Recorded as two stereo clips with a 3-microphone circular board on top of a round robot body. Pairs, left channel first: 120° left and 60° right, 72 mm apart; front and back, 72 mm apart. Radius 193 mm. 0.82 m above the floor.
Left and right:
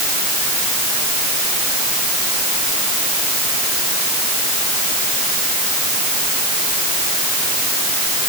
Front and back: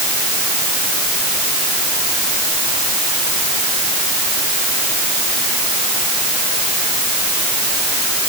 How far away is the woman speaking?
No woman speaking in this recording.